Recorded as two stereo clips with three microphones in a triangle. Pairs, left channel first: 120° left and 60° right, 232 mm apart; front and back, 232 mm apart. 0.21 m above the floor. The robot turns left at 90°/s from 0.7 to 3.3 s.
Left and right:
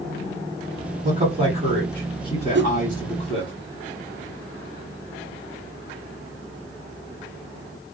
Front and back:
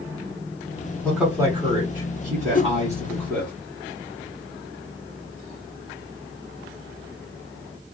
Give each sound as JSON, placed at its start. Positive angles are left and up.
{"t": 1.0, "sound": "a man speaking", "azimuth_deg": -80, "distance_m": 1.4}
{"t": 2.5, "sound": "a whoosh", "azimuth_deg": -45, "distance_m": 0.5}